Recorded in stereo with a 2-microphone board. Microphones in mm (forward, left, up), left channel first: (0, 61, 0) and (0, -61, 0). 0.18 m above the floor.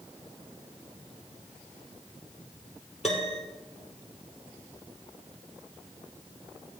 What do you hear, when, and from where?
3.0 s a piano: 60° left (ahead or behind), 2 m